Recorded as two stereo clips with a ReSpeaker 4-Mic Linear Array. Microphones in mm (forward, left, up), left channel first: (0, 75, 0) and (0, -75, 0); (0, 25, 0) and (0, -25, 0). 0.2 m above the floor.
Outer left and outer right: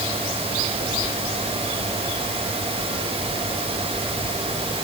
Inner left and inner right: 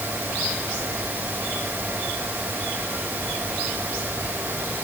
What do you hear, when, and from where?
Only background noise.